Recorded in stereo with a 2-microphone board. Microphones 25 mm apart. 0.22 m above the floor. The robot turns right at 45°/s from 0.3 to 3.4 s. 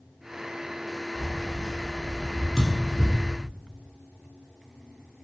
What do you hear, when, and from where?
1.1 s keys jangling: 25° right (ahead or behind), 1.2 m; by 3.2 s 45° right (ahead or behind), 1.2 m
2.6 s a thud: 15° right (ahead or behind), 0.9 m; by 2.9 s centre (ahead or behind), 0.9 m